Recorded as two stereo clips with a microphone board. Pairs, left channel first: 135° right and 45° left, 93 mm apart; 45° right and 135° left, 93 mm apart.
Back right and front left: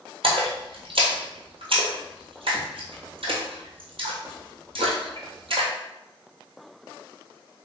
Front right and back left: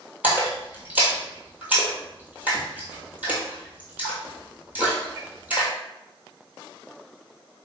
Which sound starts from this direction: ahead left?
A splash, at 0.2 s.